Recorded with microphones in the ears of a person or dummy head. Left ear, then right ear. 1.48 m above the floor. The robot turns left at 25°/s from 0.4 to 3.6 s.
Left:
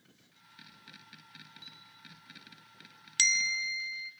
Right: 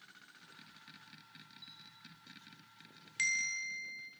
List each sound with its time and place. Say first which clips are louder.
1.6 s a clink: left 4 dB; 25° left (ahead or behind), 6.5 m; by 1.8 s 30° left (ahead or behind), 6.5 m
3.2 s a bell: left 7 dB; 30° left (ahead or behind), 0.6 m; by 4.1 s 25° left (ahead or behind), 0.6 m